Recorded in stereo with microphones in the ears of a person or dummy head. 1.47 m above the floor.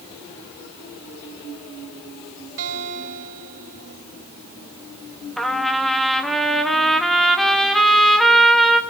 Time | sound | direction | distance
2.6 | a guitar | 65° right (ahead or behind) | 4 m
5.4 | a trumpet | 5° left (ahead or behind) | 1.7 m